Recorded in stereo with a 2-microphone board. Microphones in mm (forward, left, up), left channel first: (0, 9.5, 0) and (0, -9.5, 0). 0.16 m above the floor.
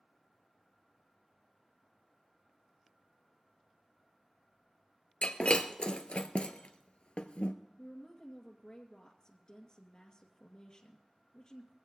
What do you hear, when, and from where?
5.2 s breaking glass: 70° left (ahead or behind), 1.1 m
7.8 s a woman speaking: 40° left (ahead or behind), 2 m